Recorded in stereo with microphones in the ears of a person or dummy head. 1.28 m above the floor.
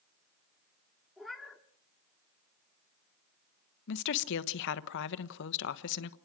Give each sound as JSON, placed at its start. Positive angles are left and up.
{"t": 1.2, "sound": "a cat meowing", "side_deg": 0, "distance_m": 1.4}
{"t": 3.9, "sound": "a woman speaking", "side_deg": 65, "distance_m": 1.1}